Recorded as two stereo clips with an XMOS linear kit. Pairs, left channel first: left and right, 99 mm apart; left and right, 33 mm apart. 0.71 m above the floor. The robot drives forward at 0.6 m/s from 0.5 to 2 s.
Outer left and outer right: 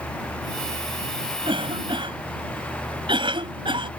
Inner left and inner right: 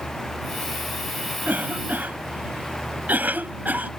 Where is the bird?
I don't hear a bird.